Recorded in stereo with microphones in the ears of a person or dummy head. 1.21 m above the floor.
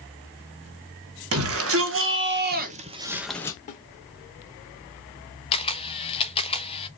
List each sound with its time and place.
1.3 s a shout: 70° right (ahead or behind), 1.6 m; by 3.6 s 20° left (ahead or behind), 0.7 m
3.7 s a snare drum: 40° left (ahead or behind), 1.2 m
5.5 s a camera shutter: 35° left (ahead or behind), 0.6 m